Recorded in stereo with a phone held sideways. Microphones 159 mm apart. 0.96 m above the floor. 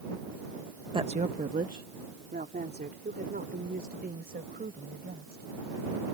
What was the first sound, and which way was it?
A woman speaking, 30° right (ahead or behind).